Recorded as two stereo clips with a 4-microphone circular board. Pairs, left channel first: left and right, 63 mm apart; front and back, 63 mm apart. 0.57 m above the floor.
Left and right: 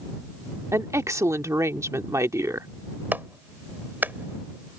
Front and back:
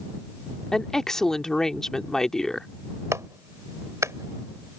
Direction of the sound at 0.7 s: 80° right.